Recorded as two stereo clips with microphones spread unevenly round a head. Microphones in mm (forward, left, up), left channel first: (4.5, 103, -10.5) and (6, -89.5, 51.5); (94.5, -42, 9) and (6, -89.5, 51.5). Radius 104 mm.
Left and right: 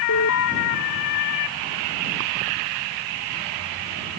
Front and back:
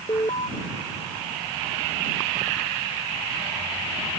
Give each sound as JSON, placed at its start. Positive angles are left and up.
{"t": 0.1, "sound": "an alarm", "azimuth_deg": 95}